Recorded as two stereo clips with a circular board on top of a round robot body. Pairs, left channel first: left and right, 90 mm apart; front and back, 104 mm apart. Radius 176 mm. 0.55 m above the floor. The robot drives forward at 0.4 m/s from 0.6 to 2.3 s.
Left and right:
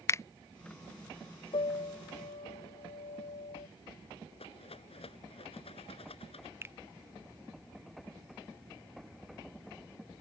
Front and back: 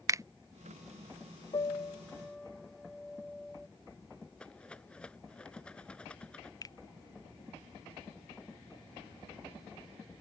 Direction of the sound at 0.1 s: 135° left.